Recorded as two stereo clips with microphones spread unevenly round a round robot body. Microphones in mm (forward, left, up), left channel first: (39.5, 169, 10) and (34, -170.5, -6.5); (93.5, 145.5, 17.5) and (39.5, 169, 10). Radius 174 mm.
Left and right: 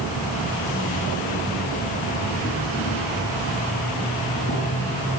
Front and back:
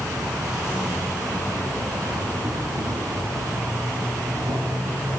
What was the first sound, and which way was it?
An insect, 160° left.